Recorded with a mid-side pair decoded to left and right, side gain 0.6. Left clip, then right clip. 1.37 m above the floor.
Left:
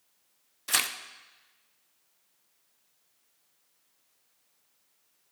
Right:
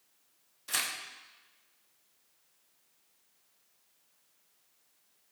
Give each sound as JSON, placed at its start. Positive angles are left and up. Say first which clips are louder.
{"t": 0.7, "sound": "tearing paper", "louder": "left 5 dB", "azimuth_deg": 40, "distance_m": 0.8}